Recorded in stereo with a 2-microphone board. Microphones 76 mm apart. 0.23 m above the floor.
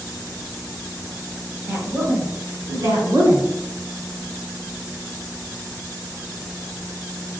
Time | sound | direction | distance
1.7 | a woman speaking | 25° right (ahead or behind) | 1.0 m